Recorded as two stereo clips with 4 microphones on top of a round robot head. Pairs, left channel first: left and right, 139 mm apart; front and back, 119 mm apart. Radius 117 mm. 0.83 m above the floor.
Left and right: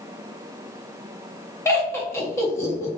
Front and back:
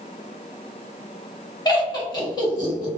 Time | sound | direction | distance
1.6 | laughter | 30° left | 1.2 m